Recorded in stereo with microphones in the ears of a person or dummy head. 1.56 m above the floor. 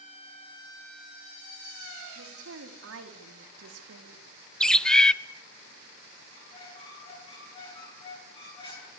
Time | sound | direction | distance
2.1 | a woman speaking | 85° right | 5 m
4.6 | a bird | 10° left (ahead or behind) | 0.7 m
6.3 | a squeak | 20° left (ahead or behind) | 10 m